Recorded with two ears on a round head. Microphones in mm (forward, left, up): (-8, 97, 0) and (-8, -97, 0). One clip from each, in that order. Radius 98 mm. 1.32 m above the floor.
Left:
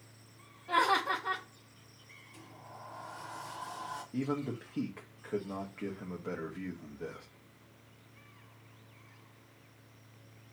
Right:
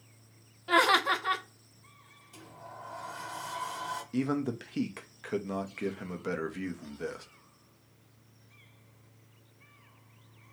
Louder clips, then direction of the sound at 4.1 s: Right 3 dB; 75° right (ahead or behind).